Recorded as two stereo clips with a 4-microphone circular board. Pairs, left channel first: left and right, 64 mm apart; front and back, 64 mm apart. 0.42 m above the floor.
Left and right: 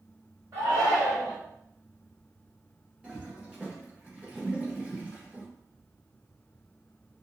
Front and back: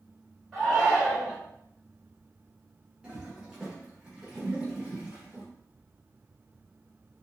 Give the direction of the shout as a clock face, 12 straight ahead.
3 o'clock.